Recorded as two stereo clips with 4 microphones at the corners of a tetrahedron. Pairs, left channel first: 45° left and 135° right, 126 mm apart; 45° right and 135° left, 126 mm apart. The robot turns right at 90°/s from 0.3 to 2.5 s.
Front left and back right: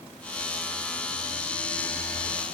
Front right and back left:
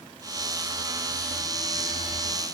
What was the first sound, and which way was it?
Only background noise.